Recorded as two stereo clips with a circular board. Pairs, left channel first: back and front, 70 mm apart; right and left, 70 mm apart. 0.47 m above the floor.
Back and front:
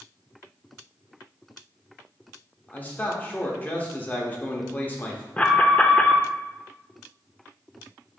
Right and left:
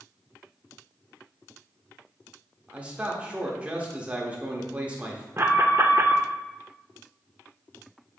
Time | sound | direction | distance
2.7 | a man speaking | 145° left | 0.8 m
5.4 | an alarm | 120° left | 0.5 m